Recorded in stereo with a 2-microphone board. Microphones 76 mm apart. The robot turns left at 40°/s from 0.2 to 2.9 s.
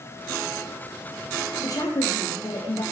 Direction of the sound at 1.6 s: 130° left.